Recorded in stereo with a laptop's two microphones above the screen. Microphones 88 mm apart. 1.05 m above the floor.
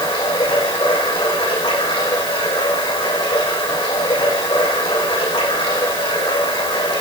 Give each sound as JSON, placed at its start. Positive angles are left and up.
{"t": 0.0, "sound": "running water", "side_deg": 85, "distance_m": 9.5}